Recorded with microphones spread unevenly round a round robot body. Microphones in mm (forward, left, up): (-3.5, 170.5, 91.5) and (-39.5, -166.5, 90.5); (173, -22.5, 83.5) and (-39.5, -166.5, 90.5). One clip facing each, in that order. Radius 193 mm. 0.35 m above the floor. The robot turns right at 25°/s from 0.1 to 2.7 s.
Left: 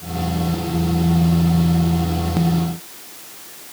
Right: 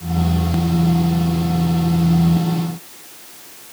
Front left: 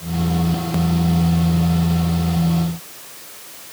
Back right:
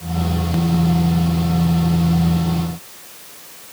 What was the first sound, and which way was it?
Only background noise.